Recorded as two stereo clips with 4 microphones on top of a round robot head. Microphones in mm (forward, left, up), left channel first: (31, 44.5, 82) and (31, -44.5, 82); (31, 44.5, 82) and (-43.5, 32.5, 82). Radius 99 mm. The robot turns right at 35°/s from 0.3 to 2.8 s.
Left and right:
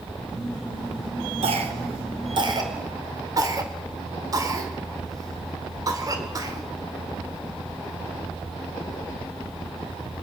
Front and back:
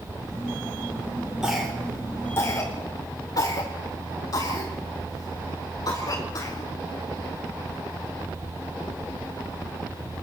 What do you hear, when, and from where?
1.4 s a cough: 90° right, 4.5 m; by 6.7 s 40° right, 4.5 m